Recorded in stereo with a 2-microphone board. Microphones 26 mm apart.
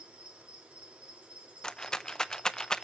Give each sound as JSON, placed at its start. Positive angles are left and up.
{"t": 0.0, "sound": "an insect", "side_deg": -60, "distance_m": 5.5}
{"t": 1.6, "sound": "a rattle", "side_deg": 25, "distance_m": 0.6}